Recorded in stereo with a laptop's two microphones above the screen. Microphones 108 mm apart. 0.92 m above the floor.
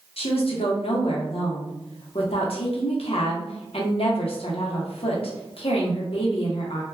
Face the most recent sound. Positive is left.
turn(degrees=65)  # may be behind; listen again after turning